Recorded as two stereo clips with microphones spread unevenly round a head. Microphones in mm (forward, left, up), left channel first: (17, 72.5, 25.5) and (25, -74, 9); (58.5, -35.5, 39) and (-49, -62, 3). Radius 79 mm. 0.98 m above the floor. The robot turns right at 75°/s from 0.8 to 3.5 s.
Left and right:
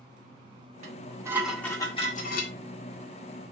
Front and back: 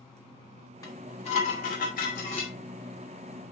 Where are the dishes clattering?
50° right, 1.9 m; by 2.5 s 80° left, 1.9 m.